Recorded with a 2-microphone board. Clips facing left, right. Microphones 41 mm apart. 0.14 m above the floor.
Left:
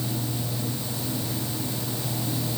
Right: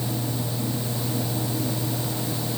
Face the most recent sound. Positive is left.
No sound to turn to.